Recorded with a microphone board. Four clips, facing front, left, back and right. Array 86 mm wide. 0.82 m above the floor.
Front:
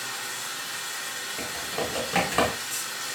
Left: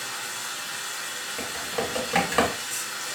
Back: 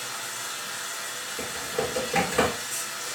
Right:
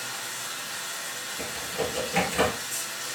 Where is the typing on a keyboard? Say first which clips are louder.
Left 1 dB, back 2 dB; 60° left, 1.4 m.